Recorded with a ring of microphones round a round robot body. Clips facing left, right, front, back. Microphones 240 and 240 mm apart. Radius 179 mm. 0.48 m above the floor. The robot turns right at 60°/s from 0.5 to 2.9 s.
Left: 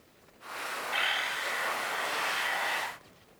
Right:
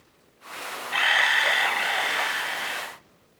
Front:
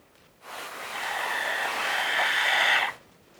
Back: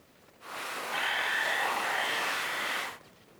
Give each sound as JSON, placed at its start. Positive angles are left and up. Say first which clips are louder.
{"t": 0.9, "sound": "a camera shutter", "louder": "right 7 dB, front 7 dB", "azimuth_deg": -125, "distance_m": 0.6}